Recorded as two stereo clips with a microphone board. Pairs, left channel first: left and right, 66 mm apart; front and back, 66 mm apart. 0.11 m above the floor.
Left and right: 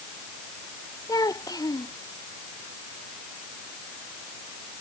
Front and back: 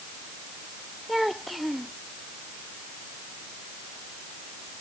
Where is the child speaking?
90° left.